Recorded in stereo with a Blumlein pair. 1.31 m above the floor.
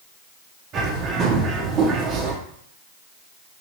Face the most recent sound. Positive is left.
turn(degrees=-25)